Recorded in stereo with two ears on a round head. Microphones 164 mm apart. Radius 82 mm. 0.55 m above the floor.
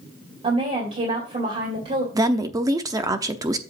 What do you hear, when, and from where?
0.4 s a woman speaking: 35° right (ahead or behind), 2.5 m
2.1 s a woman speaking: 20° right (ahead or behind), 0.7 m